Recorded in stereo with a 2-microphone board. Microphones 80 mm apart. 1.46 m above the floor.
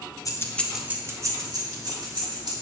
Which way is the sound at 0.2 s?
45° left (ahead or behind).